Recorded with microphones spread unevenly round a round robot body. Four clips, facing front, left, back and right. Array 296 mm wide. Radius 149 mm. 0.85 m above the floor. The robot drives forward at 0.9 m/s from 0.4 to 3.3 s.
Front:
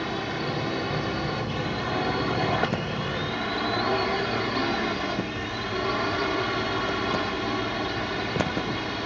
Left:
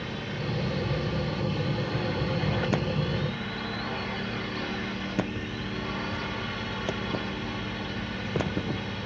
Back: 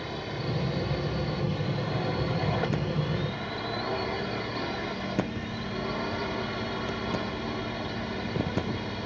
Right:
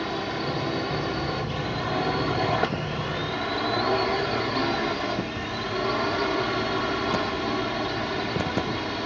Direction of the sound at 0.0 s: 55° right.